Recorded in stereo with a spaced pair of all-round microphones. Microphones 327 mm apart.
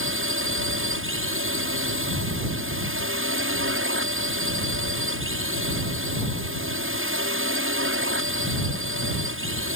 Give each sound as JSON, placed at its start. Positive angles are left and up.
{"t": 0.0, "sound": "a drone", "side_deg": -40}